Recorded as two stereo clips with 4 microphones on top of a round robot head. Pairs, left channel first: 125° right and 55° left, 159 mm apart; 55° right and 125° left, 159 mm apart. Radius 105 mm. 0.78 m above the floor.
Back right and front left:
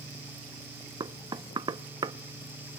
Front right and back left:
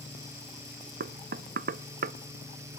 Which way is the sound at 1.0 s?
115° left.